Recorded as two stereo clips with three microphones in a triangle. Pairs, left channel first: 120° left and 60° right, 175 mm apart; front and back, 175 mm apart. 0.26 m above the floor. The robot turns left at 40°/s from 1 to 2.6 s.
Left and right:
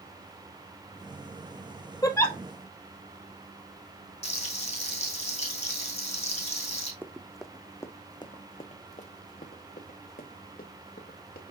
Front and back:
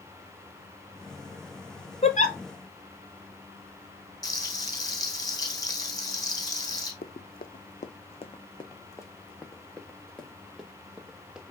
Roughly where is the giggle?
Ahead left.